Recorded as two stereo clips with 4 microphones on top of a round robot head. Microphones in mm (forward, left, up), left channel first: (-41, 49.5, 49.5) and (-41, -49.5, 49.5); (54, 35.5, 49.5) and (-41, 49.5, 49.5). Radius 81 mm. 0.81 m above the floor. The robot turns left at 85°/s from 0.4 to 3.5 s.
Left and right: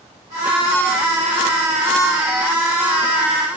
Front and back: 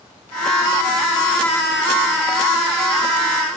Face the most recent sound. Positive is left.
No sound to turn to.